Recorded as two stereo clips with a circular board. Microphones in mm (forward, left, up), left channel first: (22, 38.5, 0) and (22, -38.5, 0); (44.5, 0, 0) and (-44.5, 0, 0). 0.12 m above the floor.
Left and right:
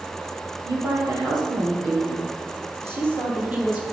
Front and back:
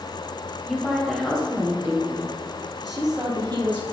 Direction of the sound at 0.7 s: 80° right.